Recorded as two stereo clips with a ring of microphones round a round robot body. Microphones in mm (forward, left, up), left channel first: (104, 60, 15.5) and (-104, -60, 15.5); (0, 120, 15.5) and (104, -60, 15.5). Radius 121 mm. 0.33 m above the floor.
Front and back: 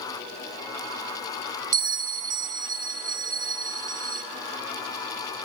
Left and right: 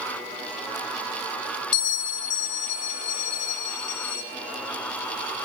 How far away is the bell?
About 0.6 m.